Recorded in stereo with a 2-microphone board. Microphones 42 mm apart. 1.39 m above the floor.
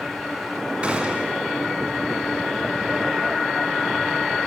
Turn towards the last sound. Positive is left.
turn(degrees=-30)  # may be behind; listen again after turning